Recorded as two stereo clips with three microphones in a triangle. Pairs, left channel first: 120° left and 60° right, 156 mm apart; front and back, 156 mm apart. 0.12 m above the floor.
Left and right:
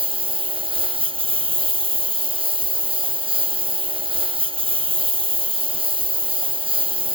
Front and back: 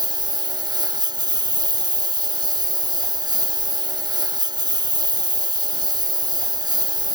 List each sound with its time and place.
0.0 s a lawn mower: 115° right